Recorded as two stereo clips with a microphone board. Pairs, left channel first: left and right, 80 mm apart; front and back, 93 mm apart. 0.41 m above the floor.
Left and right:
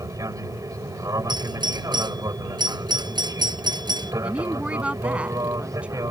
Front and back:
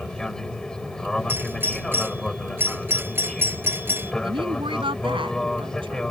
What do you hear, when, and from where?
0.0 s an aircraft: 80° right
1.3 s a doorbell: 110° right
4.2 s a woman speaking: 165° right